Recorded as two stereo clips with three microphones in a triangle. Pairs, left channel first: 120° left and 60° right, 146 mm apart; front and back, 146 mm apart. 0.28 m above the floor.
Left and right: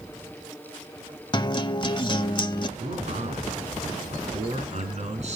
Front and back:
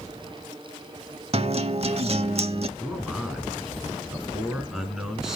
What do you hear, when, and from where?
1.3 s a guitar: 160° left, 0.6 m
2.8 s a man speaking: 95° right, 4 m